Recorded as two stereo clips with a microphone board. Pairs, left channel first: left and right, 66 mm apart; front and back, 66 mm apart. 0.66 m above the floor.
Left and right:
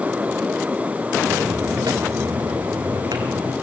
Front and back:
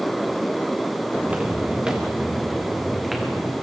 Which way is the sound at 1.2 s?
110° right.